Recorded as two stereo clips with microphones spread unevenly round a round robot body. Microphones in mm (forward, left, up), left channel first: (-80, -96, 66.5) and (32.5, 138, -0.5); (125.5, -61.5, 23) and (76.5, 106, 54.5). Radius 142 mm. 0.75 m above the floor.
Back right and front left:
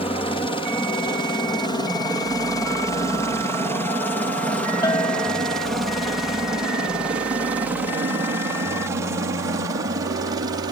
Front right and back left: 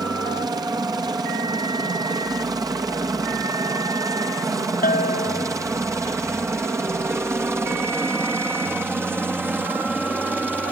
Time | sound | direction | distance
0.0 | a helicopter | 170° left | ?
4.8 | a bell | 40° right | ?